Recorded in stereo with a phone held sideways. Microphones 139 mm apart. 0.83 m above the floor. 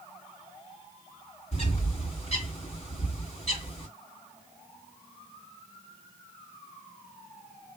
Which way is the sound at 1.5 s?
50° left (ahead or behind).